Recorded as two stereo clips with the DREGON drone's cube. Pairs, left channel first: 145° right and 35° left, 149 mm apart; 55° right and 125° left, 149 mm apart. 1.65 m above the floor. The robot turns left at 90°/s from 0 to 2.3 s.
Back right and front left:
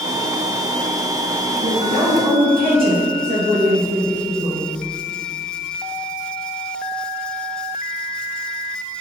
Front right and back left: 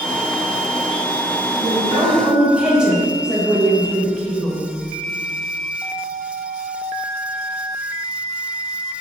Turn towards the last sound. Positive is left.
turn(degrees=40)